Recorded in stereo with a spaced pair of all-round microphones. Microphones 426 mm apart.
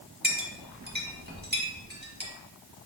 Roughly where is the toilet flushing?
I don't hear a toilet flushing.